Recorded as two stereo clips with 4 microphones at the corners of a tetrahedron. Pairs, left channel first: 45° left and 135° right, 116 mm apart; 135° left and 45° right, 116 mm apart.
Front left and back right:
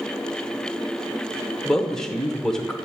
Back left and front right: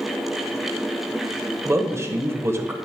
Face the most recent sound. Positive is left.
turn(degrees=-35)